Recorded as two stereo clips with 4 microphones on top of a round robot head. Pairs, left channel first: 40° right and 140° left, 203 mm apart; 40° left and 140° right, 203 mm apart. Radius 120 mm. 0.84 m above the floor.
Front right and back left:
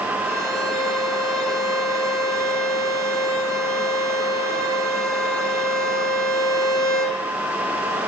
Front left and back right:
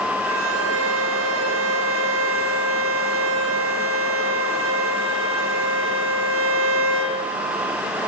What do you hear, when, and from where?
0.2 s a violin: 125° right, 4.5 m